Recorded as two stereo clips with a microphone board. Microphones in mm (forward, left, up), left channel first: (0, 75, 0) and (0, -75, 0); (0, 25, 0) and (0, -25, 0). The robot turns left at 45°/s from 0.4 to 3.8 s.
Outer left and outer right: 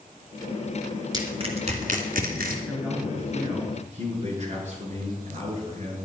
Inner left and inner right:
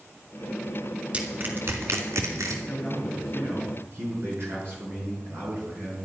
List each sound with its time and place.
1.1 s crushing: 25° right (ahead or behind), 2.5 m; by 2.6 s 80° right, 2.5 m
2.7 s a man speaking: straight ahead, 6.5 m; by 6.0 s 50° right, 6.5 m